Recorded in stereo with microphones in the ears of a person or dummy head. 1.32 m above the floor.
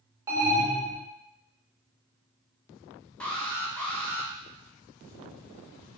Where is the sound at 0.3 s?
20° right (ahead or behind), 0.8 m.